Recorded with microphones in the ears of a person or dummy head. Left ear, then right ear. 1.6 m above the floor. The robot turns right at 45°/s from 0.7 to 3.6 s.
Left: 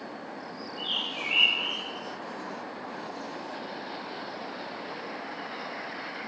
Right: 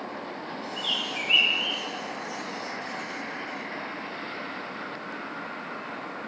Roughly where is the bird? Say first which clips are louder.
Right 2 dB; right.